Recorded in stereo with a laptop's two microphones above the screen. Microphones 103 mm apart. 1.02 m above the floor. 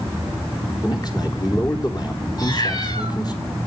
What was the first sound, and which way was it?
A man speaking, 40° left (ahead or behind).